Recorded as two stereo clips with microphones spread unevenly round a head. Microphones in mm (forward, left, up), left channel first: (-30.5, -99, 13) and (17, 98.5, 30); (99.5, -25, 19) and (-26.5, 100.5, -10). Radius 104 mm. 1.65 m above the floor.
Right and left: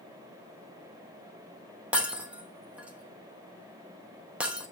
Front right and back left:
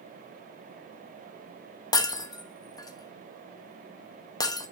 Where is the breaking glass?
Straight ahead, 1.1 m.